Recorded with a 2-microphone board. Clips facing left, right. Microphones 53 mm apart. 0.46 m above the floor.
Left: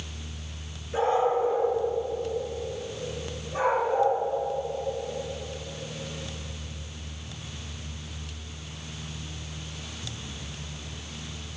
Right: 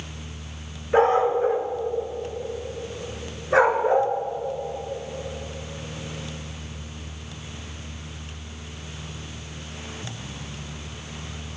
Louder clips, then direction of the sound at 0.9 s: Right 5 dB; 50° right (ahead or behind).